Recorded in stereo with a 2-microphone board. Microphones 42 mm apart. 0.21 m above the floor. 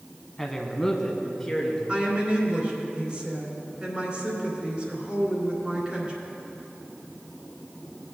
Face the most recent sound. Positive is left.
turn(degrees=-25)  # may be behind; listen again after turning